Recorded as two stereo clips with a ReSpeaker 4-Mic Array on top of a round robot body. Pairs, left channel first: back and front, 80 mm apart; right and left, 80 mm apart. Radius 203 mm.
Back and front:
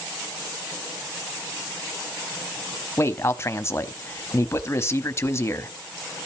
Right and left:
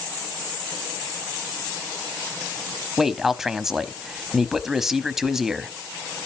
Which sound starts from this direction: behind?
A man speaking, at 3.0 s.